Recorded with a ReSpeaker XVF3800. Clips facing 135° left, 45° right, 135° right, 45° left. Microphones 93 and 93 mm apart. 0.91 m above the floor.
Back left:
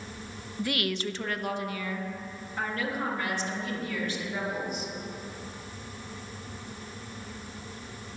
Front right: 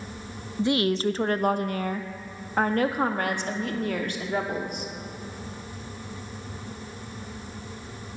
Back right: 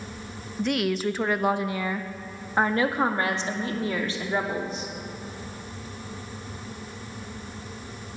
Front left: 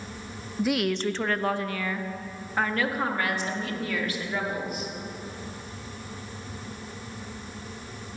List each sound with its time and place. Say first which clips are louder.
0.6 s a woman speaking: front right 7 dB, even; 25° right, 0.5 m; by 4.9 s 75° right, 2.5 m